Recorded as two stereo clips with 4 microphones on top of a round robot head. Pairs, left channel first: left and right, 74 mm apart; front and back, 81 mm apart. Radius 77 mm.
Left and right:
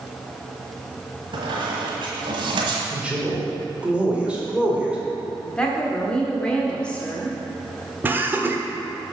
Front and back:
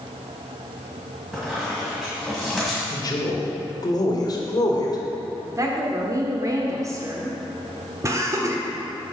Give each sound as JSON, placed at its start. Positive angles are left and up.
{"t": 1.3, "sound": "a squeak", "azimuth_deg": -90, "distance_m": 1.6}
{"t": 2.9, "sound": "a man speaking", "azimuth_deg": -15, "distance_m": 1.5}
{"t": 5.5, "sound": "a woman speaking", "azimuth_deg": 160, "distance_m": 1.1}
{"t": 8.0, "sound": "laughter", "azimuth_deg": -145, "distance_m": 1.2}